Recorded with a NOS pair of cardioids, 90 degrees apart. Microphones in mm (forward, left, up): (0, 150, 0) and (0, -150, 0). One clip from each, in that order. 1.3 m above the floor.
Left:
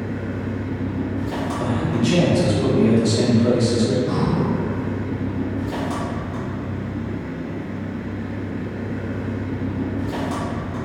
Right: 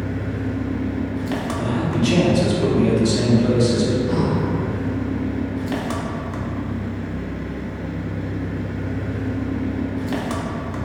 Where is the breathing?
20° left, 1.2 m.